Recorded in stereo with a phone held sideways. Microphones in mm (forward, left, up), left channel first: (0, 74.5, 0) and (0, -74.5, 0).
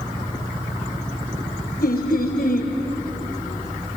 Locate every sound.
1.8 s laughter: 85° left, 4 m